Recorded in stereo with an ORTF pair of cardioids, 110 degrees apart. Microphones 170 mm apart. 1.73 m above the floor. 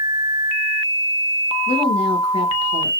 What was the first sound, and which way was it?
A woman speaking, 35° left.